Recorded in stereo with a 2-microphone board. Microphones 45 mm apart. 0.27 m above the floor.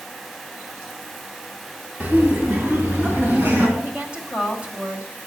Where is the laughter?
45° right (ahead or behind), 2 m.